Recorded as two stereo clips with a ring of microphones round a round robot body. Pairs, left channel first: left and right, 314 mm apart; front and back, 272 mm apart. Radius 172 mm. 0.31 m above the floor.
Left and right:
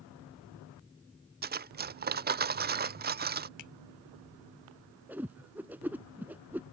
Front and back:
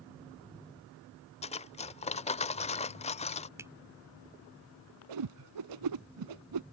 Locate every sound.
1.4 s cutlery clinking: 50° right
3.6 s a finger snap: 100° left
5.1 s a whoosh: 175° right